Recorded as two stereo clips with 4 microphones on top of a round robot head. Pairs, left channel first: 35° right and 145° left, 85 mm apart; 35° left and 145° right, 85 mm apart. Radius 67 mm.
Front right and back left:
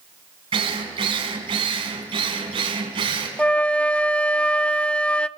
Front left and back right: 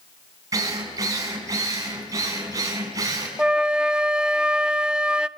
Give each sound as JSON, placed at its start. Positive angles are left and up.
{"t": 0.5, "sound": "a drill", "azimuth_deg": 160, "distance_m": 5.0}
{"t": 3.4, "sound": "a flute", "azimuth_deg": -85, "distance_m": 0.8}